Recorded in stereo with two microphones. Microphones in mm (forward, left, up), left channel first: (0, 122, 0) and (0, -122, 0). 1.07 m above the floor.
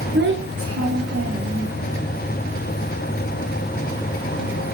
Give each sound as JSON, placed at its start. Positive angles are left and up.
{"t": 0.1, "sound": "a child speaking", "side_deg": -45, "distance_m": 0.7}